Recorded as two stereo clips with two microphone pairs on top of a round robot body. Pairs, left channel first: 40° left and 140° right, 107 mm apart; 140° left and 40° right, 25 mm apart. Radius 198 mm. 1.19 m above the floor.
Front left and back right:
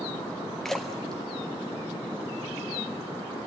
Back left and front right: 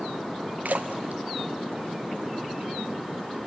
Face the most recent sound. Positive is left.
turn(degrees=-45)